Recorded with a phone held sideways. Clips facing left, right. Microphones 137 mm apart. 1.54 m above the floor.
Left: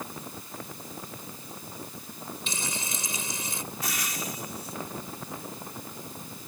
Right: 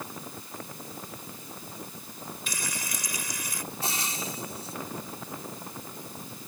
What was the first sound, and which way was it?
Frying, 25° left (ahead or behind).